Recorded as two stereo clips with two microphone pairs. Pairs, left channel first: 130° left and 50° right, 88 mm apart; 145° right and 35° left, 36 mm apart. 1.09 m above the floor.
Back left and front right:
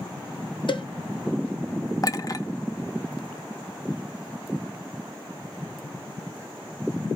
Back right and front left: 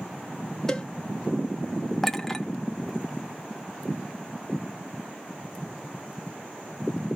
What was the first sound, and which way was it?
A cowbell, 145° left.